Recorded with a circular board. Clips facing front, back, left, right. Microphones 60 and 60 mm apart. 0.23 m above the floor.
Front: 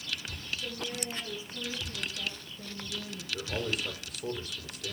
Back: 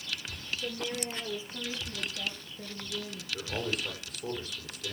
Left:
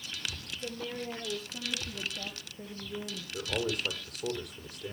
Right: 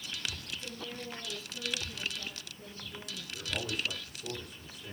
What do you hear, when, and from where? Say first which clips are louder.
0.6 s a woman speaking: back 4 dB, left 8 dB; 125° left, 5.5 m; by 3.2 s 100° left, 6.5 m
3.3 s a man speaking: even, left 5 dB; 90° left, 9 m